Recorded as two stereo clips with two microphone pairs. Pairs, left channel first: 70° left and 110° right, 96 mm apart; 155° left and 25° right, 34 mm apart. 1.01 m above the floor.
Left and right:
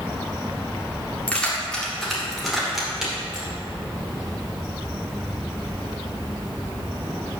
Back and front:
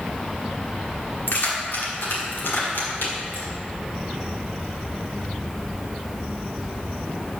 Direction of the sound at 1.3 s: 145° left.